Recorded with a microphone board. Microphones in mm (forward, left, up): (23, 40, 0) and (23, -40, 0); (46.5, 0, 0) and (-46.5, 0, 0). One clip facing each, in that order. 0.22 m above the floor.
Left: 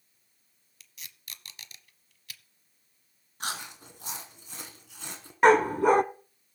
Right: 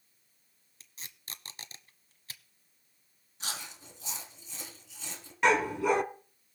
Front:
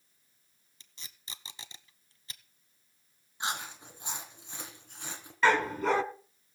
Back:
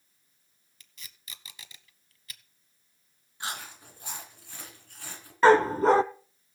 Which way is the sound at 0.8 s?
50° right.